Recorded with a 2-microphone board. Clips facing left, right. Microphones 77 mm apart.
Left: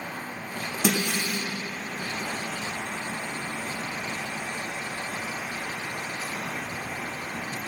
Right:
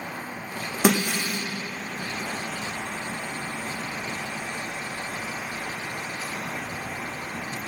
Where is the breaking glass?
70° right (ahead or behind), 1.9 m.